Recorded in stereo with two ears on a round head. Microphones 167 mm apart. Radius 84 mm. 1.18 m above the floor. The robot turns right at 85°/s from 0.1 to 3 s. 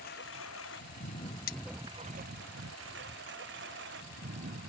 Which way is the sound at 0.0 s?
55° left (ahead or behind).